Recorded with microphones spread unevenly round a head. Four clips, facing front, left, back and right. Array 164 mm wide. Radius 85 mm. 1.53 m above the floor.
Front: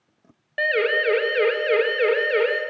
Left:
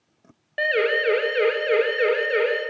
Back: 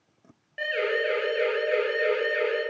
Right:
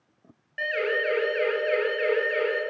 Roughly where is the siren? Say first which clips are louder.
Left 5 dB, front 5 dB; ahead left.